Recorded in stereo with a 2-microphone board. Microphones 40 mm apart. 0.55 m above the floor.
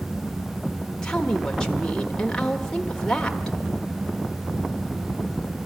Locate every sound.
1.0 s a woman speaking: 15° left (ahead or behind), 1.4 m